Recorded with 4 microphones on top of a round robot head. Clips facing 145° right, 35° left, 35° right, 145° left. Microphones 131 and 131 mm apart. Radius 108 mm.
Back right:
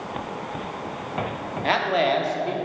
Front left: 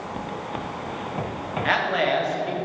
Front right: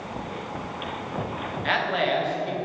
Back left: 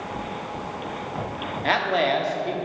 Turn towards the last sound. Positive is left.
turn(degrees=170)